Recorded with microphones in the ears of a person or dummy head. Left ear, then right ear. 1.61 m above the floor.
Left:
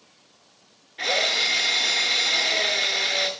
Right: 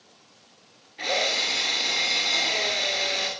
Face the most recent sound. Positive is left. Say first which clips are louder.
# left 2 dB
turn(degrees=35)  # may be behind; listen again after turning